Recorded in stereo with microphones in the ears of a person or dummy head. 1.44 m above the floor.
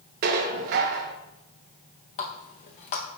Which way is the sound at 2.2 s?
40° left (ahead or behind).